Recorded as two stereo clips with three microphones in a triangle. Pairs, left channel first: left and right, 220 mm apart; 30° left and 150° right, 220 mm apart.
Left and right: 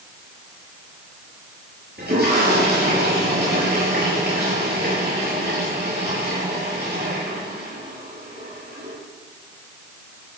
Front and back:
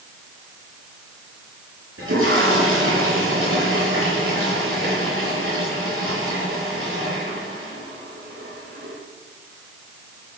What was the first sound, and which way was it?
A toilet flushing, 135° right.